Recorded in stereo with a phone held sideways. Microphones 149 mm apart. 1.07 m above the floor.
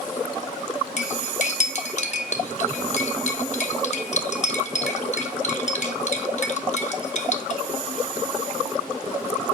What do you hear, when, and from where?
1.0 s cutlery clinking: 55° left (ahead or behind), 1.0 m